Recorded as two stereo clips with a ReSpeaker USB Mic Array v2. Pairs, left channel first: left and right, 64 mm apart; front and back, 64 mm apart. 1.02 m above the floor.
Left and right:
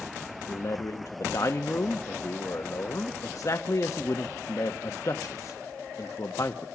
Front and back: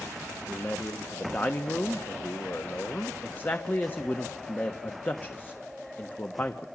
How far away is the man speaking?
About 1.2 m.